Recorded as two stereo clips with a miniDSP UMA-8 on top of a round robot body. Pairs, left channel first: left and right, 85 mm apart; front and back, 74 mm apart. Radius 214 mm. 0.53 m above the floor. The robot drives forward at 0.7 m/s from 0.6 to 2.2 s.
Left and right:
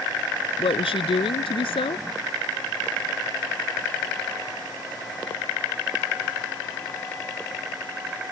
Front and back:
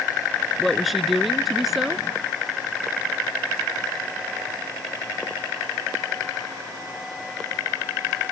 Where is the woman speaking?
90° left; by 2.1 s 95° left.